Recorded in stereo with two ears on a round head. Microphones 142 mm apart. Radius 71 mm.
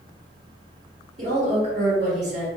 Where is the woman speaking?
50° right (ahead or behind), 1.6 m.